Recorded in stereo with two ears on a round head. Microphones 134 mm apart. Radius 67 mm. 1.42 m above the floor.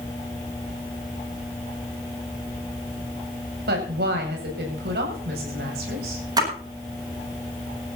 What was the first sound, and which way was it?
A woman speaking, 80° right.